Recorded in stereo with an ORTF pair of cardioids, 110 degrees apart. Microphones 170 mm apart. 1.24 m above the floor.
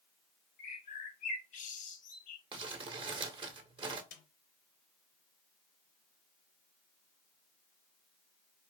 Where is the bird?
55° left, 1.4 m.